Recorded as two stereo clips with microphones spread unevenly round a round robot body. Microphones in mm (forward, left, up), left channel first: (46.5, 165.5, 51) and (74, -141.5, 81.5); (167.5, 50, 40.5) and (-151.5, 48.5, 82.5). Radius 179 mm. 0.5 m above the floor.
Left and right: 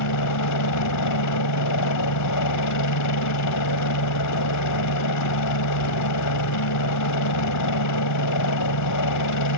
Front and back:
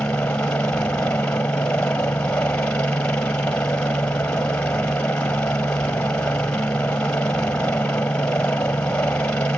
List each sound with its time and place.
0.0 s a helicopter: 85° left